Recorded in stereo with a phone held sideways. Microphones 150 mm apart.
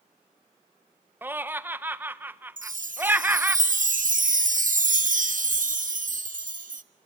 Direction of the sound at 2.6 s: 60° right (ahead or behind).